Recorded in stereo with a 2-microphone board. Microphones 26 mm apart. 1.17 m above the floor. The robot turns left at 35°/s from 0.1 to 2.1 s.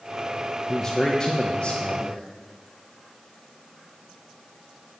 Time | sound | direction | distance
0.7 | a man speaking | 160° left | 1.1 m